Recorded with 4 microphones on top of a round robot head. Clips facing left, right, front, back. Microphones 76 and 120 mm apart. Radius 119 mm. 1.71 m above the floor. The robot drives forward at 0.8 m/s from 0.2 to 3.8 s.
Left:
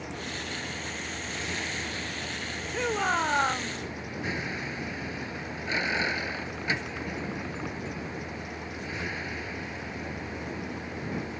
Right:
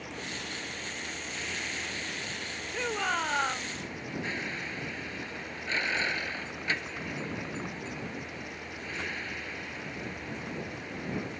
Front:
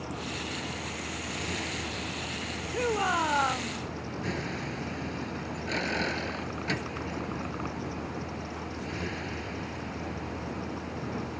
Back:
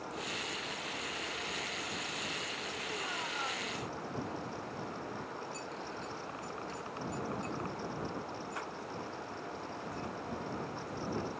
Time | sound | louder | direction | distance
0.0 | a vehicle | left 3 dB, front 5 dB | 10° left | ?
2.7 | a shout | left 4 dB, front 17 dB | 15° left | ?